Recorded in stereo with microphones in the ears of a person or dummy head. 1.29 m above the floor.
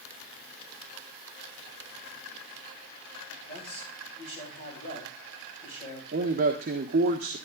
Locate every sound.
3.4 s a man speaking: 35° left (ahead or behind), 9 m
6.1 s a man speaking: 45° right (ahead or behind), 1.2 m